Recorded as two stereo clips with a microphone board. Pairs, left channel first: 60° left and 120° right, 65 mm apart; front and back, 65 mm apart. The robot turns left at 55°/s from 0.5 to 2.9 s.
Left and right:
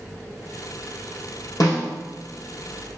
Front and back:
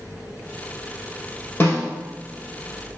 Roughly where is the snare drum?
Ahead left.